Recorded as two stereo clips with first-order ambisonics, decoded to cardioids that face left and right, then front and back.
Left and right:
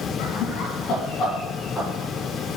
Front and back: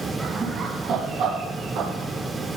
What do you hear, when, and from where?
0.2 s laughter: 100° left, 2 m; by 2.6 s 170° left, 4 m